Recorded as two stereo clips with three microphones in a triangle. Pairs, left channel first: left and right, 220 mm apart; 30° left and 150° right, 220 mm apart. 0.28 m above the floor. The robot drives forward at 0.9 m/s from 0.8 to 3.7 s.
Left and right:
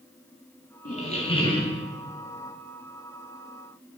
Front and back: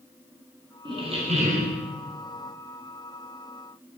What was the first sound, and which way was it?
A squeak, 145° left.